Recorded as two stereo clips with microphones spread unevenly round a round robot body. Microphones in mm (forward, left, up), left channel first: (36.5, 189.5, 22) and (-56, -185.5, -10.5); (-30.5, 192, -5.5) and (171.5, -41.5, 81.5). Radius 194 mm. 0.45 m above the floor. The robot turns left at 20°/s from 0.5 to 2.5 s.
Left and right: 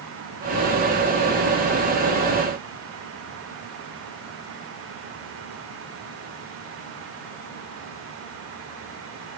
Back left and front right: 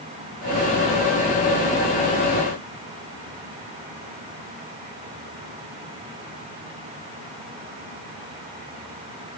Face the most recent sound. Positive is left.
No sound to turn to.